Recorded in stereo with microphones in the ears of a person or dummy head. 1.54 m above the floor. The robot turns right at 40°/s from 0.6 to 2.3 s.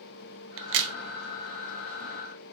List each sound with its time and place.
0.6 s a crack: 65° right (ahead or behind), 0.5 m; by 0.9 s 75° right (ahead or behind), 0.5 m